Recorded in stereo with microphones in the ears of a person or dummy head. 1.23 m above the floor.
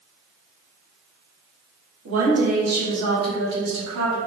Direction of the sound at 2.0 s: 70° right (ahead or behind).